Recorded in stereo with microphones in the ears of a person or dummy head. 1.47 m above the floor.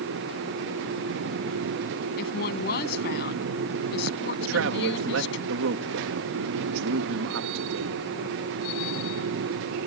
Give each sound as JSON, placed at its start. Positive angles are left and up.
{"t": 2.2, "sound": "a woman speaking", "side_deg": 45}
{"t": 4.4, "sound": "a man speaking", "side_deg": -80}